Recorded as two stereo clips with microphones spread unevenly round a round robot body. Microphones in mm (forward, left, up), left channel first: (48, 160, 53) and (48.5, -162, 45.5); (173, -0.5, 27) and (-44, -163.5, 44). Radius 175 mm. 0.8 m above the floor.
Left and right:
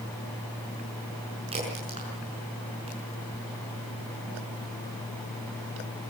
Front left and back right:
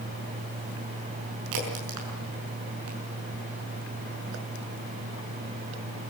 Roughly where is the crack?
Behind.